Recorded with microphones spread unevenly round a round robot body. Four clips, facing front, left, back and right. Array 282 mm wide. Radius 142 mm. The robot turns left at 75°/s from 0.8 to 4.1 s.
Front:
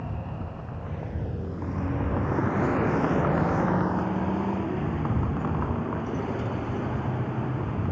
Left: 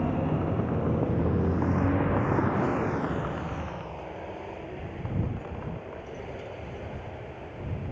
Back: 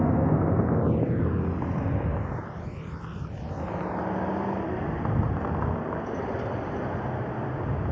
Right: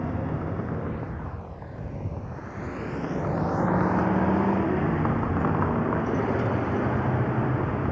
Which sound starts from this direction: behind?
A vehicle, at 0.0 s.